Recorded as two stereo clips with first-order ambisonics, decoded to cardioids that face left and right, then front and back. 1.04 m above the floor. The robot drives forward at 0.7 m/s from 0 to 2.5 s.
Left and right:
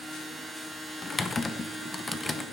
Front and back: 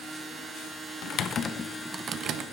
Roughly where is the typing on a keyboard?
Ahead.